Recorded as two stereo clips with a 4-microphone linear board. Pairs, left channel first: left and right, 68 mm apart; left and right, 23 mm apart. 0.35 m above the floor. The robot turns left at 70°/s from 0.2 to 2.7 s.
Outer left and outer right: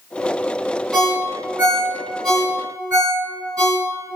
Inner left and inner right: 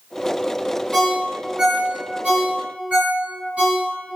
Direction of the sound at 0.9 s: Centre (ahead or behind).